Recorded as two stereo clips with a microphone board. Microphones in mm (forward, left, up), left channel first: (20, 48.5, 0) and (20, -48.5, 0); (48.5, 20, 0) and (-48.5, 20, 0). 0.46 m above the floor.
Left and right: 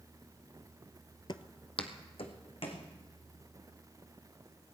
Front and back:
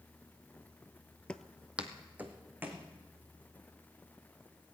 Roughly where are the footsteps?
Left.